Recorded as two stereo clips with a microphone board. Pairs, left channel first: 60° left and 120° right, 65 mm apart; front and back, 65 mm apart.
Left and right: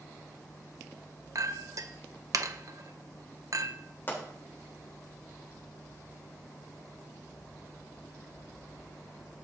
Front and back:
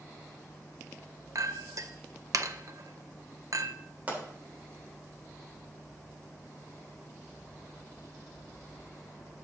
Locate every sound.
1.4 s a clink: 150° right, 0.6 m
4.1 s a pop: 115° left, 3 m